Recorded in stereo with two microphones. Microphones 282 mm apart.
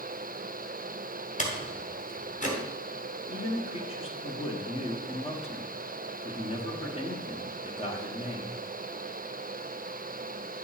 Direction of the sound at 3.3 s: 20° left (ahead or behind).